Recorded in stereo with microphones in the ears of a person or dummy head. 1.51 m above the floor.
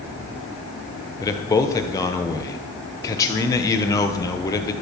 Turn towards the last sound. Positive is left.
turn(degrees=20)  # may be behind; listen again after turning